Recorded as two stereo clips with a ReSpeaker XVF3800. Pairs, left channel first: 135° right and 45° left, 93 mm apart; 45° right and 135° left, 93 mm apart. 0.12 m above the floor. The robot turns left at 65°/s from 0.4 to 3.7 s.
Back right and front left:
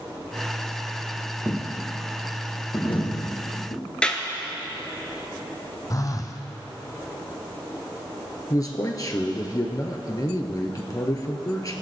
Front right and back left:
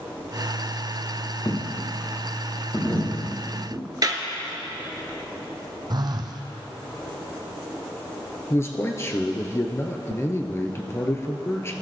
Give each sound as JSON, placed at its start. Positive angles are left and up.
{"t": 1.4, "sound": "a dropped coin", "azimuth_deg": -15, "distance_m": 3.5}
{"t": 4.0, "sound": "a clap", "azimuth_deg": 150, "distance_m": 1.3}
{"t": 5.9, "sound": "a phone buzzing", "azimuth_deg": 175, "distance_m": 1.2}
{"t": 8.5, "sound": "a man speaking", "azimuth_deg": -100, "distance_m": 1.7}